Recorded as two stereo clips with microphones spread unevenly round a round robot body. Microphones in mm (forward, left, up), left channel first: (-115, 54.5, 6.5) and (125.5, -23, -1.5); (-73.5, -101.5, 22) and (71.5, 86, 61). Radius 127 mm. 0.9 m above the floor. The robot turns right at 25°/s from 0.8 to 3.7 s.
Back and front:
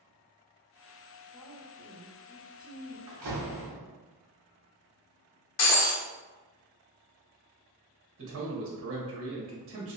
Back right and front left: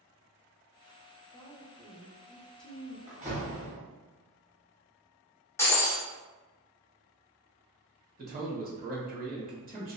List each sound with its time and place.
1.3 s a woman speaking: 95° right, 0.7 m; by 3.0 s 55° right, 0.7 m
3.1 s a door slam: 15° right, 1.3 m; by 3.8 s straight ahead, 1.3 m
5.6 s breaking glass: 150° left, 0.8 m
8.2 s a man speaking: straight ahead, 1.1 m